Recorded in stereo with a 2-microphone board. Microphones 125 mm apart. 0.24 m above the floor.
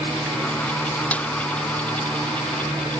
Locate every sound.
1.1 s a snare drum: 10° left (ahead or behind)